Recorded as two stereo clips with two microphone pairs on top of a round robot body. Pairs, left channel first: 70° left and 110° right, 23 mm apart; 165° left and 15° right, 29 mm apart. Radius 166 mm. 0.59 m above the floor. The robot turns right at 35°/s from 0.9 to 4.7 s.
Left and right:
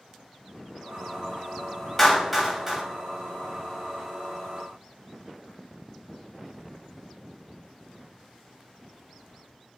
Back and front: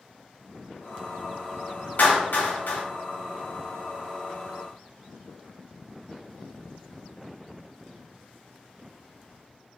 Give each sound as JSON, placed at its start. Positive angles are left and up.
{"t": 2.0, "sound": "a clap", "azimuth_deg": 150, "distance_m": 2.0}